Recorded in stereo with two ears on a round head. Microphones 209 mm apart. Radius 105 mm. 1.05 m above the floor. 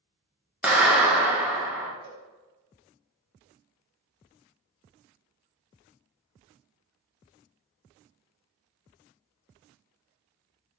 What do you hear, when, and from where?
0.6 s a clap: 5° right (ahead or behind), 0.8 m
2.0 s a cowbell: 80° right, 1.0 m